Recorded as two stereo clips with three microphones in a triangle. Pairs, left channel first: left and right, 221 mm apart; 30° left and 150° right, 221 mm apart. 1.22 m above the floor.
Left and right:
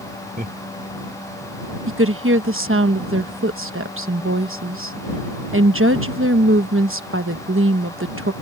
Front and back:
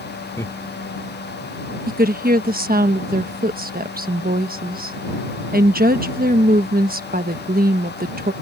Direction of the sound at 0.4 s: 45° right.